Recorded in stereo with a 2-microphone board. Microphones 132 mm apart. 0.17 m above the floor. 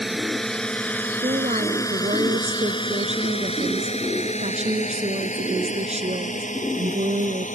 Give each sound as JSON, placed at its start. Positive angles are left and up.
{"t": 0.0, "sound": "a drone", "side_deg": 0}
{"t": 1.2, "sound": "a woman speaking", "side_deg": -60}